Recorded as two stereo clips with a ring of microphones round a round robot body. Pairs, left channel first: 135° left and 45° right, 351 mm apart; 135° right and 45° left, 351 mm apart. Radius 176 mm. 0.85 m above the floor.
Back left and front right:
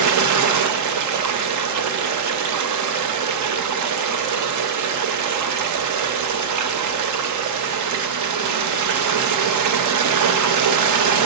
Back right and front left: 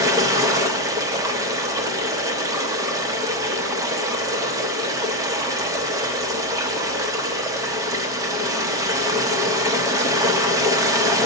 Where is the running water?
35° right, 0.7 m.